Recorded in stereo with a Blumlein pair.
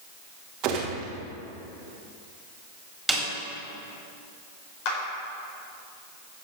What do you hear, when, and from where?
0.6 s a gunshot: 40° right, 2.5 m
3.1 s a snare drum: 5° right, 3.5 m
4.8 s a clap: 45° left, 4.5 m